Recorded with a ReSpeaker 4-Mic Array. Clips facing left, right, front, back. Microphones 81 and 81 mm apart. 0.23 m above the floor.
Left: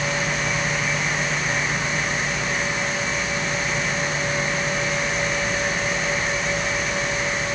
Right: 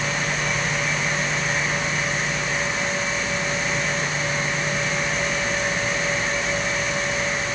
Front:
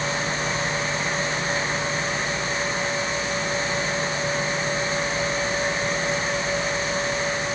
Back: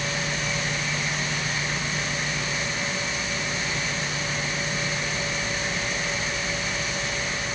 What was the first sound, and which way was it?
Only background noise.